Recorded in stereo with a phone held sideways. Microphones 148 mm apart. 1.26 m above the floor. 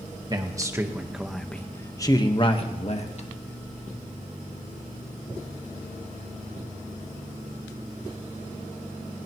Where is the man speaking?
30° right (ahead or behind), 1.5 m; by 3.3 s 55° left (ahead or behind), 1.8 m.